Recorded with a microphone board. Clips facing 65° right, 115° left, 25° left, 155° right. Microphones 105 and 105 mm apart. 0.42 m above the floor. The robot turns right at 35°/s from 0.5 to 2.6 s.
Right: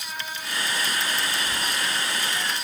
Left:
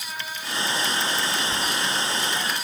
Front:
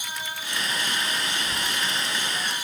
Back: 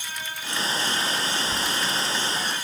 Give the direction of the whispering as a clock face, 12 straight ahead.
1 o'clock.